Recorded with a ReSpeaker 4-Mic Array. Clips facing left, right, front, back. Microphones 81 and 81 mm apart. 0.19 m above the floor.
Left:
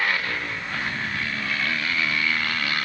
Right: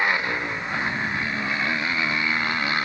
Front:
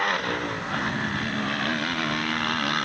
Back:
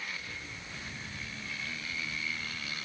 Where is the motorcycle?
20° right.